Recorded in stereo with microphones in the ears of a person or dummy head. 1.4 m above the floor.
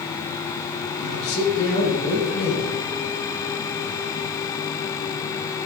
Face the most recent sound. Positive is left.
turn(degrees=50)  # may be behind; listen again after turning